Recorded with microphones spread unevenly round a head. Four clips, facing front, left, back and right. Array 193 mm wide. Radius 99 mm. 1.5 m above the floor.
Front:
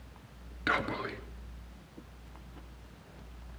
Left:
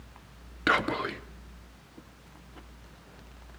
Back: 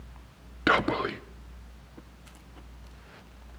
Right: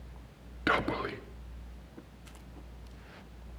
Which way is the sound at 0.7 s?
165° left.